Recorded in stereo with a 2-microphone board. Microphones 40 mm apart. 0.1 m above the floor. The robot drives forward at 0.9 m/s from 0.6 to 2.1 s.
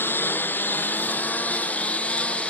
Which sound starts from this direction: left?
A lawn mower, at 0.0 s.